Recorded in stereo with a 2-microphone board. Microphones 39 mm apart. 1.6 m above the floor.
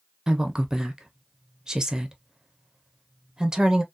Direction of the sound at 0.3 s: 15° right (ahead or behind).